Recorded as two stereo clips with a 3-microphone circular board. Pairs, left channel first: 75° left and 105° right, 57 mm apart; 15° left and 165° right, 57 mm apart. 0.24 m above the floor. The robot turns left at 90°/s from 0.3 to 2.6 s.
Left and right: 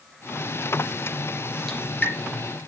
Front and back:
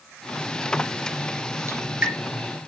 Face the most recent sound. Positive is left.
turn(degrees=80)